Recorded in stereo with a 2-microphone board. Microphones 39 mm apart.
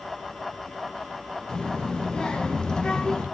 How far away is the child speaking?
About 0.8 m.